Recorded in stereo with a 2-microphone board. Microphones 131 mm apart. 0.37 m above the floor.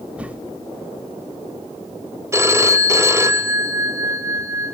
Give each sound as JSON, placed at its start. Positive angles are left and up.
{"t": 0.2, "sound": "a whoosh", "side_deg": -10, "distance_m": 1.2}
{"t": 2.3, "sound": "a phone ringing", "side_deg": -20, "distance_m": 1.1}